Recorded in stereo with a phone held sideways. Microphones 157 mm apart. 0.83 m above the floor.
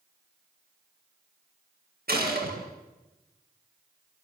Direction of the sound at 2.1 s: 75° right (ahead or behind).